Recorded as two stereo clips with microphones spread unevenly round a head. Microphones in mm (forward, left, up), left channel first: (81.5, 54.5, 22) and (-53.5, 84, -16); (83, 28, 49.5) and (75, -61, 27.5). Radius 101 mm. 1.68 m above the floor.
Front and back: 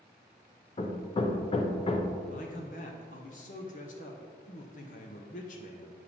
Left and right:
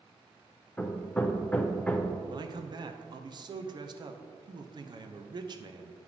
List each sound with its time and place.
0.8 s hammering: 15° left, 0.7 m
2.3 s a man speaking: 50° right, 0.8 m